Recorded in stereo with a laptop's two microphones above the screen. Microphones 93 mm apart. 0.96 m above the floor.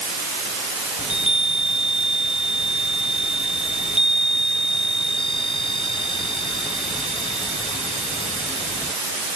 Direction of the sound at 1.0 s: 65° left (ahead or behind).